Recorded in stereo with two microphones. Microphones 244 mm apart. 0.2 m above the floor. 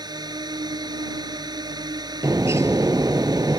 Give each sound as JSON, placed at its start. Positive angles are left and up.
{"t": 0.0, "sound": "a drone", "side_deg": -15}
{"t": 2.2, "sound": "a bird", "side_deg": -10}